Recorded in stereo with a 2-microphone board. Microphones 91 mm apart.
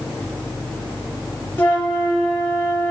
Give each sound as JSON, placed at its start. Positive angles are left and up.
{"t": 1.6, "sound": "a flute", "side_deg": 20, "distance_m": 3.0}